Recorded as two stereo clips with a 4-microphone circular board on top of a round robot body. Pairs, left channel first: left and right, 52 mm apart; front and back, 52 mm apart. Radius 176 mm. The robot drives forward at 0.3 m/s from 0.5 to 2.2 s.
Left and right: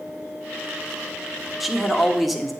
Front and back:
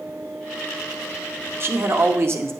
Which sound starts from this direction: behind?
A man speaking, at 1.6 s.